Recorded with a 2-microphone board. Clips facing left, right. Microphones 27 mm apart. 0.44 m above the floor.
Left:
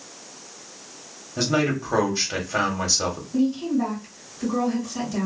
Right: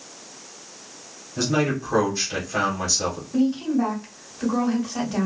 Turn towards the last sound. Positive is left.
turn(degrees=-45)  # may be behind; listen again after turning